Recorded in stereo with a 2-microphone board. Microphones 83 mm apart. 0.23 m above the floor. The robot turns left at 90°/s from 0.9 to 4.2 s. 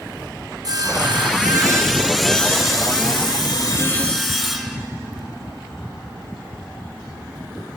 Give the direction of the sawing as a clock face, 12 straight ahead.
2 o'clock.